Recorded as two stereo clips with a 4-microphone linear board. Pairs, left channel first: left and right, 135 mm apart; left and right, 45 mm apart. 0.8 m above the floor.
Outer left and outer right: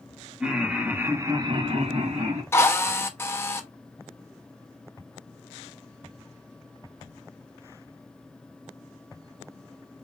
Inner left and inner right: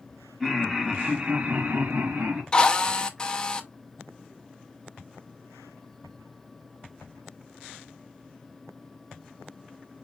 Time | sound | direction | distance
0.4 | laughter | 5° right (ahead or behind) | 1.7 m
2.5 | a drill | 20° left (ahead or behind) | 0.6 m